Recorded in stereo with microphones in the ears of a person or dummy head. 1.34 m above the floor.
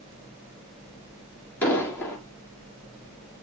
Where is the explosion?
5° left (ahead or behind), 4 m.